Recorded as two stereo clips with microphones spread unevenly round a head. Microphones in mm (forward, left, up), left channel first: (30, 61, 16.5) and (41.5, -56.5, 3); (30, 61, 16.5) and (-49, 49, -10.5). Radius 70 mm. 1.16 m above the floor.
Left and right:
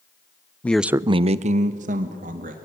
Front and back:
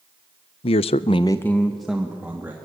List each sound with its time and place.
0.6 s a man speaking: 15° left, 0.6 m; by 2.5 s 95° right, 2 m